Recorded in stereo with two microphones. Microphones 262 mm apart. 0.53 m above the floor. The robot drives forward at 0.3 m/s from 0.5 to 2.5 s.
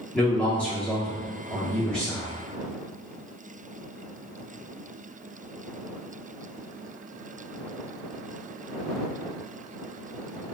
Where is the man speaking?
5° left (ahead or behind), 1.1 m.